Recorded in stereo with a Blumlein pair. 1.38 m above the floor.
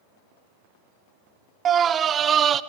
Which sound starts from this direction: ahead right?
A scream, at 1.6 s.